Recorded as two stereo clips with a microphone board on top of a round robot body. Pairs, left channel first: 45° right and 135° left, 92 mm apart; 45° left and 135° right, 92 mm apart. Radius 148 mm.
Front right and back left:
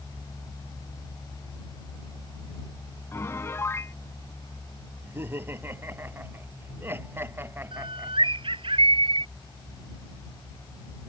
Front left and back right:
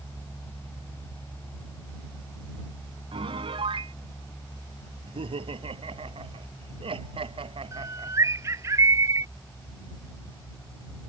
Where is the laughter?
160° right.